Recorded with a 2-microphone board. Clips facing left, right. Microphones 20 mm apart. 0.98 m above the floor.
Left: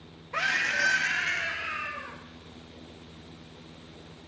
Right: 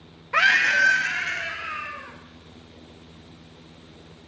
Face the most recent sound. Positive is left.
turn(degrees=-25)  # may be behind; listen again after turning